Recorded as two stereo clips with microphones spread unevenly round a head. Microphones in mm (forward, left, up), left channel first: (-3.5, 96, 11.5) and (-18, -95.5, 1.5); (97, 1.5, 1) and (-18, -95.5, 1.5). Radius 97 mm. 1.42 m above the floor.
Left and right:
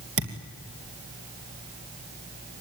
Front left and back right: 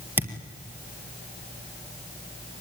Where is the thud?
65° right, 3 m.